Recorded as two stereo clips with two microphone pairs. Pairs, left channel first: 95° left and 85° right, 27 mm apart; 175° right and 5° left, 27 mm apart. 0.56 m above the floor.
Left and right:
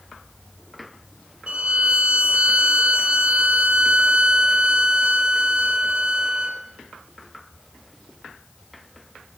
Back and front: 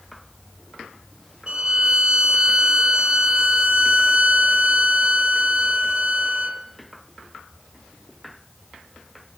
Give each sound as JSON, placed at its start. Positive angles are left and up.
{"t": 1.5, "sound": "a violin", "azimuth_deg": -45, "distance_m": 0.6}